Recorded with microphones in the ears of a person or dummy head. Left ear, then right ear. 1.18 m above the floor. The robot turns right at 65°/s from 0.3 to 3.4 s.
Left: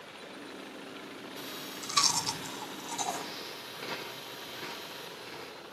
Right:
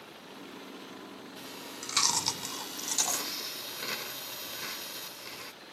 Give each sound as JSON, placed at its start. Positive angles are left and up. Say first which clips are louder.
{"t": 1.4, "sound": "chewing", "louder": "left 2 dB", "side_deg": -30, "distance_m": 1.8}